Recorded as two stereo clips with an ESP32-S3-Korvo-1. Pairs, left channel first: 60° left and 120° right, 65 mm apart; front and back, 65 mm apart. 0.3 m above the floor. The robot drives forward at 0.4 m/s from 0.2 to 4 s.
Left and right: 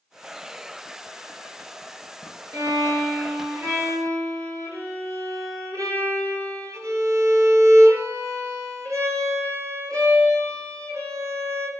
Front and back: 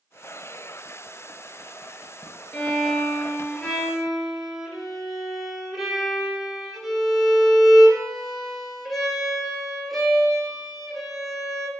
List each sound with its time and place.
2.5 s a violin: 70° right, 2 m; by 11.7 s 90° right, 1.9 m